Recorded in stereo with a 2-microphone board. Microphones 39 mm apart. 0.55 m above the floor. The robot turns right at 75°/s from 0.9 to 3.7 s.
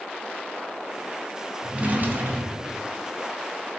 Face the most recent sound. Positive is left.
turn(degrees=10)